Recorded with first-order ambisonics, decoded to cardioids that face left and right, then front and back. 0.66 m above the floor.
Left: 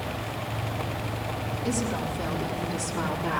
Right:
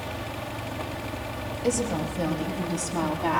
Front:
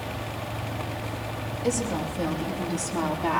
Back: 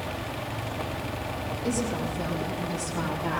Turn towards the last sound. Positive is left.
turn(degrees=-65)